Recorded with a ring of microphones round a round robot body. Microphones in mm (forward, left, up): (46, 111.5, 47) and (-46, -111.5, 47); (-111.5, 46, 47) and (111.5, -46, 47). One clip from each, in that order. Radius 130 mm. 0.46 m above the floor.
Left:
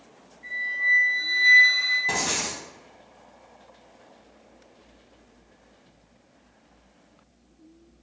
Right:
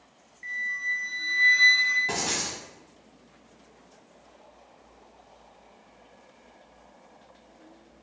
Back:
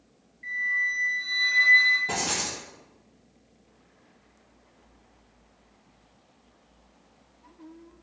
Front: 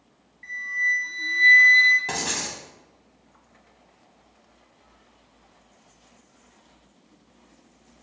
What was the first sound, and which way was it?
A flute, 90° right.